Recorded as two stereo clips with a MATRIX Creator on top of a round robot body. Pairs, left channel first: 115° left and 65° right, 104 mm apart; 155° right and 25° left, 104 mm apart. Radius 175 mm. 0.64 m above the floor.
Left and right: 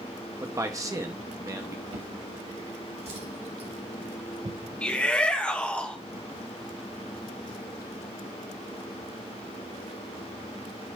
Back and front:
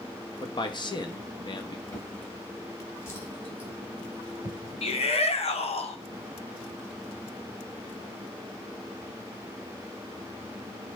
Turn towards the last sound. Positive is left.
turn(degrees=-170)